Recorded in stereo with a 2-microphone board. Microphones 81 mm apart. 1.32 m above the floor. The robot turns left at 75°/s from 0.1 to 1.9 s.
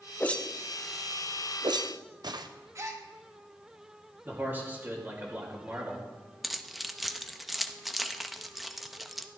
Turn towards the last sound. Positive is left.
turn(degrees=0)  # may be behind; listen again after turning